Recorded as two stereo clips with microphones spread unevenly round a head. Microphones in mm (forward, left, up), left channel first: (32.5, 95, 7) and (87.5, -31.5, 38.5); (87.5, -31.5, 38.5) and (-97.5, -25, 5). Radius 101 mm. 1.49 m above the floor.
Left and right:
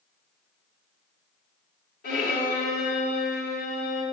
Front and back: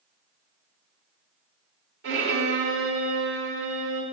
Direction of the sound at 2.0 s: 145° left.